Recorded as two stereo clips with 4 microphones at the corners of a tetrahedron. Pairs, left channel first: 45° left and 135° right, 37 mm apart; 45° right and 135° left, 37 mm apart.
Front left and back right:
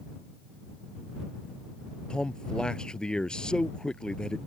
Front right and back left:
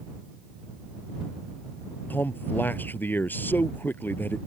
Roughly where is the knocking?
I don't hear knocking.